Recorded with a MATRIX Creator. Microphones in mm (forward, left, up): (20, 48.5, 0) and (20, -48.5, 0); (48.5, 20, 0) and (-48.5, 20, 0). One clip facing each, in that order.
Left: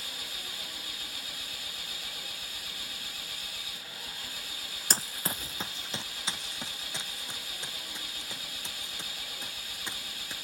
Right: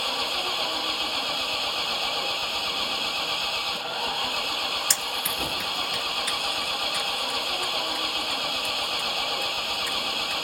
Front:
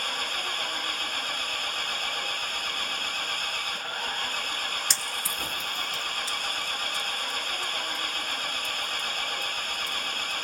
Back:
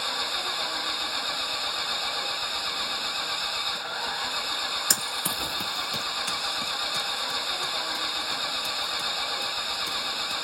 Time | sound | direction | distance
0.0 | an engine running | 95° right | ?
4.9 | running footsteps | 135° left | ?